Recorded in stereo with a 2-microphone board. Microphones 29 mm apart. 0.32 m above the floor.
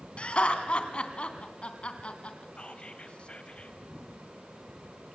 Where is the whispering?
40° left (ahead or behind), 1.9 m.